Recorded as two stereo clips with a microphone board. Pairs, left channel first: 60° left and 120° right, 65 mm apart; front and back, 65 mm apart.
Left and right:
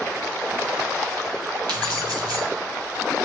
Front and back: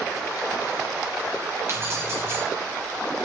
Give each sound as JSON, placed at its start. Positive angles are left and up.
{"t": 1.7, "sound": "keys jangling", "azimuth_deg": -125, "distance_m": 4.5}